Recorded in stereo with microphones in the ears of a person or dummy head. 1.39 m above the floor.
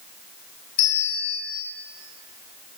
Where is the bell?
50° left (ahead or behind), 0.7 m.